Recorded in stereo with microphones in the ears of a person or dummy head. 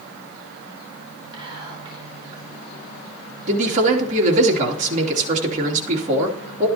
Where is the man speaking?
40° right (ahead or behind), 3 m.